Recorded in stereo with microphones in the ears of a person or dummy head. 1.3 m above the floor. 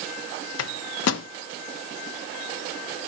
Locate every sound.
0.6 s a microwave: 80° left, 0.6 m